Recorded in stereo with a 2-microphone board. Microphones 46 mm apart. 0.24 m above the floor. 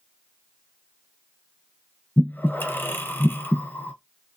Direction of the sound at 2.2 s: 50° left (ahead or behind).